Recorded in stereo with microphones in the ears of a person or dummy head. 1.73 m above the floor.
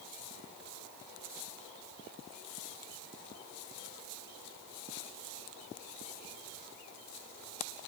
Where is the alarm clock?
I don't hear an alarm clock.